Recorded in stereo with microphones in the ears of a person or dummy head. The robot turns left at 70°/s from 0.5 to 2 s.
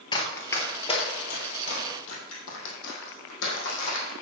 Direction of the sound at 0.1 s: 25° left (ahead or behind).